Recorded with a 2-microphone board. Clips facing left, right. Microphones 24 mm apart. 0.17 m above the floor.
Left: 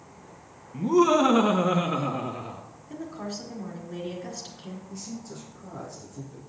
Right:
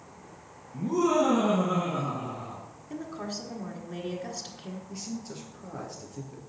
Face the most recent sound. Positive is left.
turn(degrees=-35)  # may be behind; listen again after turning